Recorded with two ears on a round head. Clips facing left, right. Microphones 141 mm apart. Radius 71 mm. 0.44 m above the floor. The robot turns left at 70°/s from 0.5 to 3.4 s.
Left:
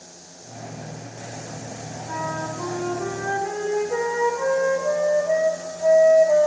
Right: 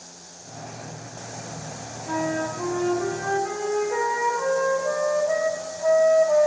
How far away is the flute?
About 1.1 m.